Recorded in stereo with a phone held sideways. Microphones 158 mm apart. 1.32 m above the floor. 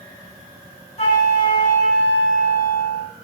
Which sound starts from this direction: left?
A flute, at 1.0 s.